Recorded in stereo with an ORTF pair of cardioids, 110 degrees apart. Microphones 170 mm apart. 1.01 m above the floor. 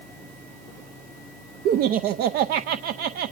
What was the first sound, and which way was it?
Laughter, 65° right.